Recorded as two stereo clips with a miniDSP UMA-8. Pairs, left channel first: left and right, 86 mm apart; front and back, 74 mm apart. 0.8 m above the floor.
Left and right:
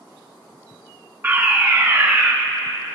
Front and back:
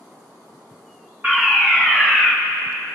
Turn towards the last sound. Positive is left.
turn(degrees=-135)